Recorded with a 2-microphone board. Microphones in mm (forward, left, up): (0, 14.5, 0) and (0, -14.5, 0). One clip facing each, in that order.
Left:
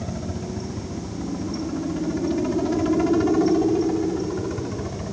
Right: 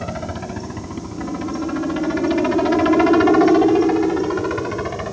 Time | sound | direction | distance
0.0 | a helicopter | 50° right (ahead or behind) | ?